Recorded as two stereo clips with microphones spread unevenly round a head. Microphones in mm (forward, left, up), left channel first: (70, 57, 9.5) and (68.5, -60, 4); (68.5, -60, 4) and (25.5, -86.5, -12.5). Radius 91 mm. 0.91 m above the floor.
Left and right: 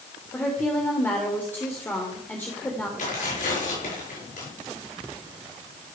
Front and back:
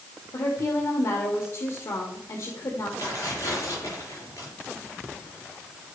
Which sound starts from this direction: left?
Tearing paper, at 3.0 s.